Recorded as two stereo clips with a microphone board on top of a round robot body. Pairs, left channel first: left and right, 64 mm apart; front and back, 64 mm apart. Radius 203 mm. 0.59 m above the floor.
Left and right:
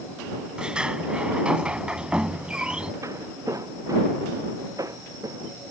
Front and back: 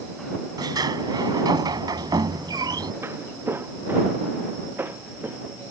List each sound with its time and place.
0.6 s a sliding door: 165° right
3.0 s footsteps: 130° right; by 5.5 s 120° right